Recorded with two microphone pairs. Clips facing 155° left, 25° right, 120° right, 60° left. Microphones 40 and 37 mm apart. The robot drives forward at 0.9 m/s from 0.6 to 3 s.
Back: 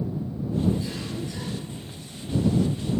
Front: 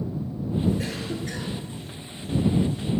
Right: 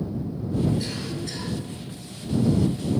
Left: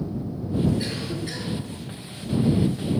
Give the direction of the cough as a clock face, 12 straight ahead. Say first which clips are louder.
Front 1 dB, left 1 dB; 12 o'clock.